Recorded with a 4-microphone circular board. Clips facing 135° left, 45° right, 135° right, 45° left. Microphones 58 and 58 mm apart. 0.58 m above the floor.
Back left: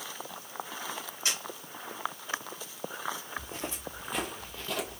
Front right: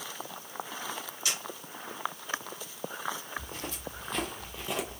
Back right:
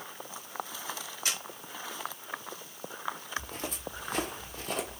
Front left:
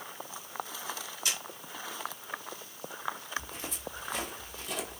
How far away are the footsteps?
About 1.2 m.